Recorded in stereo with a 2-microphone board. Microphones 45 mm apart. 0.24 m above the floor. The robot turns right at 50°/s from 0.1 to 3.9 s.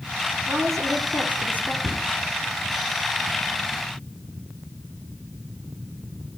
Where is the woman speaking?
10° right, 6 m; by 1.7 s 55° left, 6 m.